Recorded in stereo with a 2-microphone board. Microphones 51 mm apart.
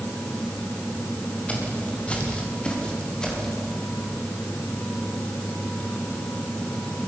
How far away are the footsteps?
About 7.5 m.